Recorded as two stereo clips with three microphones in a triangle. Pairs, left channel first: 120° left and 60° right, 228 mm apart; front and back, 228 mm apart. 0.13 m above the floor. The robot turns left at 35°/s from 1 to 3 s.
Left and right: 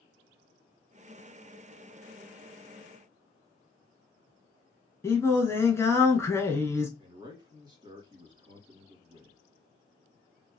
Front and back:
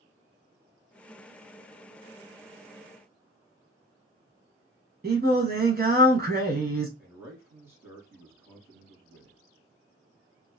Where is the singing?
165° right, 0.6 m.